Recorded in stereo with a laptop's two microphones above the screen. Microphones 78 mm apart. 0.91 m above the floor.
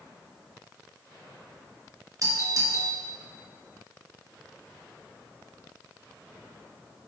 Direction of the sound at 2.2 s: 45° right (ahead or behind).